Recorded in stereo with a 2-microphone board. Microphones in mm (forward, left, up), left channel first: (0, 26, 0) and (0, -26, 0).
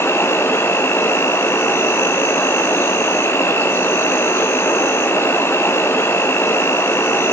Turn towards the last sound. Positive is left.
turn(degrees=55)  # may be behind; listen again after turning